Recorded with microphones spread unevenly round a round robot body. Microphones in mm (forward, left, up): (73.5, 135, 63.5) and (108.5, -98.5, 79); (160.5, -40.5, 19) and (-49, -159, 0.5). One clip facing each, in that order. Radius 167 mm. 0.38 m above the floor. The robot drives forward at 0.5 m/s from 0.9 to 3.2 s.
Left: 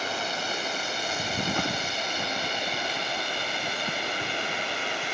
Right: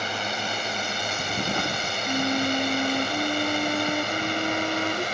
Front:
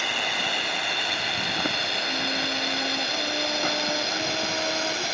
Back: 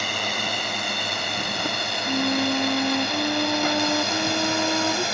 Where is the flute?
130° right; by 5.0 s 135° right.